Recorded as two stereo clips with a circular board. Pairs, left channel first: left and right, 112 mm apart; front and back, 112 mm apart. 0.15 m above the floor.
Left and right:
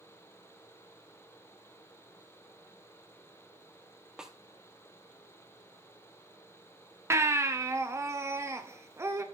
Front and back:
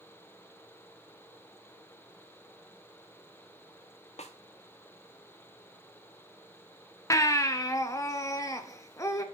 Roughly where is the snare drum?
Ahead.